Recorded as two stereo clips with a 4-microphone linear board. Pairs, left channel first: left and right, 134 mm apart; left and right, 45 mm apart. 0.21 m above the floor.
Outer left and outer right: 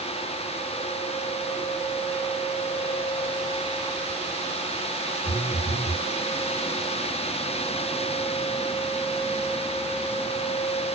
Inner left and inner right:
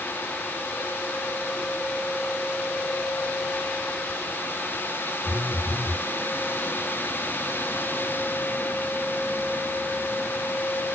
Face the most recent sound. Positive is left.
turn(degrees=65)  # may be behind; listen again after turning